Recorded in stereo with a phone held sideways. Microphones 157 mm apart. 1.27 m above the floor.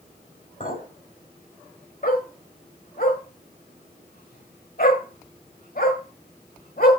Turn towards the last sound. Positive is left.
turn(degrees=65)  # may be behind; listen again after turning